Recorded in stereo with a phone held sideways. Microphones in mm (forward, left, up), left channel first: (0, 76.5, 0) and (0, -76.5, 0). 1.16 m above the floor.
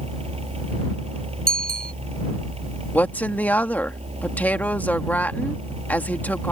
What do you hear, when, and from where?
0.0 s a fan: 40° right (ahead or behind)
1.5 s a bicycle bell: 80° right
2.9 s a woman speaking: 10° left (ahead or behind)